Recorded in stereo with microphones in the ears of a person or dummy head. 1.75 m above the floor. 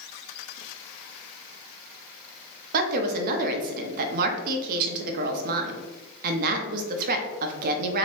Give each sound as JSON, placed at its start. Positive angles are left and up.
{"t": 2.7, "sound": "a woman speaking", "side_deg": -55, "distance_m": 0.7}